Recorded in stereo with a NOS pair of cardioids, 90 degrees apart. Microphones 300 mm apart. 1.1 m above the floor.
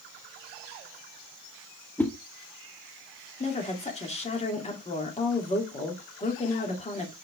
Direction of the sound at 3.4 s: 20° left.